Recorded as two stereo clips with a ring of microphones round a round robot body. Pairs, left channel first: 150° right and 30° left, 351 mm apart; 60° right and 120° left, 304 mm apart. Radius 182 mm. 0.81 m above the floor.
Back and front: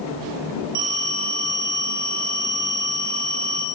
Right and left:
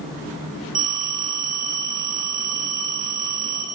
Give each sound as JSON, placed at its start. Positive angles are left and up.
{"t": 0.8, "sound": "a phone ringing", "azimuth_deg": 55, "distance_m": 7.0}